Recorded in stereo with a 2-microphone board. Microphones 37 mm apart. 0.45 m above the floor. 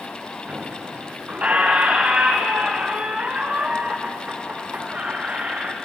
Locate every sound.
0.5 s a squeak: 40° right (ahead or behind), 2.5 m